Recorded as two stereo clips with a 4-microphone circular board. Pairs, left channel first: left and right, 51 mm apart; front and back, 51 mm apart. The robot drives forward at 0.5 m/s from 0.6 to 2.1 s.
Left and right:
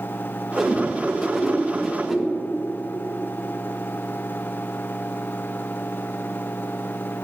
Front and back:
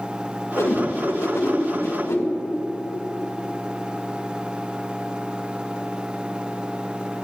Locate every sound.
0.6 s a whoosh: 5° right, 2.5 m